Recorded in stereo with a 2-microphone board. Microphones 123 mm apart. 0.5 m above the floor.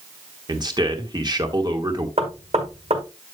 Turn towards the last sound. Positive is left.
turn(degrees=-60)  # may be behind; listen again after turning